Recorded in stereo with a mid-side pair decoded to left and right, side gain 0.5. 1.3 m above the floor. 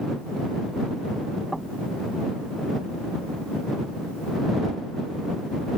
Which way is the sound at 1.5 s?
10° right.